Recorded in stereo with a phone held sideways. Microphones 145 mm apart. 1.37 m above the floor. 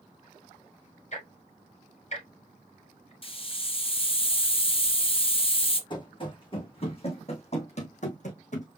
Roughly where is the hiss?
Left.